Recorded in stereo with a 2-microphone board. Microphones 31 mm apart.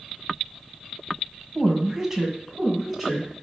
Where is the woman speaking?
25° right (ahead or behind), 1.3 m; by 3.3 s centre (ahead or behind), 2.5 m.